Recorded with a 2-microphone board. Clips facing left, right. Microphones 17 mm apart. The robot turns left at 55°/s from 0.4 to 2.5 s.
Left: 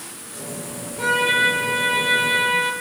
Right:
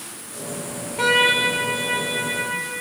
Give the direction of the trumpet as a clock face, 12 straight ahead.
5 o'clock.